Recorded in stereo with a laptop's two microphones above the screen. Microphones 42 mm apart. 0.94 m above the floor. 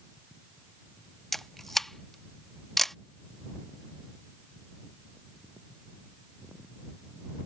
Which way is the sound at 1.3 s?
5° left (ahead or behind).